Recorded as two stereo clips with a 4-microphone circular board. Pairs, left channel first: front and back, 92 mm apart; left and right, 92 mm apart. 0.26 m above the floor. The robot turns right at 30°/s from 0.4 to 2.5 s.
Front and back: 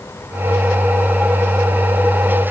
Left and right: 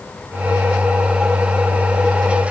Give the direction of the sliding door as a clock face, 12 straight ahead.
No sliding door in this recording.